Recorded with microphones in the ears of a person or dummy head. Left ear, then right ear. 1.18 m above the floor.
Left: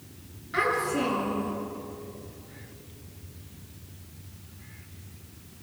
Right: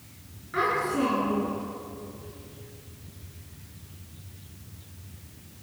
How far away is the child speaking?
About 9.5 m.